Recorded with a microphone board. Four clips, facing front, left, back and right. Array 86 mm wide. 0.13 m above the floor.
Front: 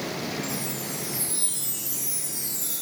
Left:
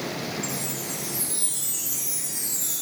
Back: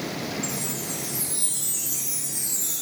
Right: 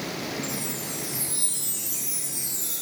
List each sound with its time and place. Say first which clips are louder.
0.4 s a chime: even, even; 105° left, 4.5 m